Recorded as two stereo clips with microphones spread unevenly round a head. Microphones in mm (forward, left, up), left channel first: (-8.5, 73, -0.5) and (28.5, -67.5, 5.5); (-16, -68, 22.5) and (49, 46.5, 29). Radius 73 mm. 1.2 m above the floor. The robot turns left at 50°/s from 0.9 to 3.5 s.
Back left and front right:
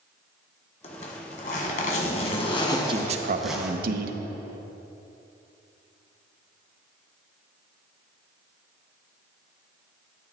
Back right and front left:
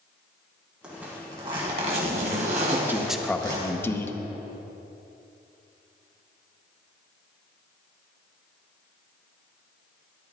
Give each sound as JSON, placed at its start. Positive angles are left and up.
{"t": 0.8, "sound": "a zipper", "azimuth_deg": 140, "distance_m": 1.5}
{"t": 2.7, "sound": "a man speaking", "azimuth_deg": -5, "distance_m": 0.7}